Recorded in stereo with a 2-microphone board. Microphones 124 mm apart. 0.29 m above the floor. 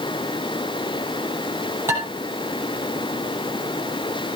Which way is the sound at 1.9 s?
20° right (ahead or behind).